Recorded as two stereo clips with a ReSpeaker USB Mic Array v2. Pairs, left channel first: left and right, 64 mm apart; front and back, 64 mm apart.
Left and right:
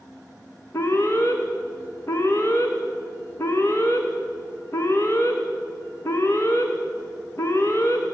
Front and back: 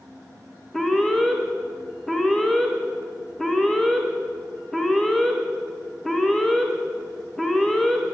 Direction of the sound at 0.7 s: 80° left.